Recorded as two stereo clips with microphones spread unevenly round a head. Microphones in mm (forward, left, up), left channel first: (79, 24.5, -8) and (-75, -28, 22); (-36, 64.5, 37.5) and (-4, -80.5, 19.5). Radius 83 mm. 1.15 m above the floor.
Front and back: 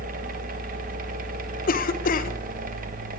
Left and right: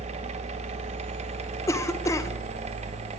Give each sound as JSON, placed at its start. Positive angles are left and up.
{"t": 0.0, "sound": "a fan", "azimuth_deg": -120, "distance_m": 1.3}
{"t": 1.7, "sound": "a cough", "azimuth_deg": 30, "distance_m": 1.0}